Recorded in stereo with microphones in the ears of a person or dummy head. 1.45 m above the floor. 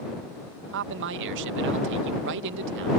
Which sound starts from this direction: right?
A man speaking, at 0.7 s.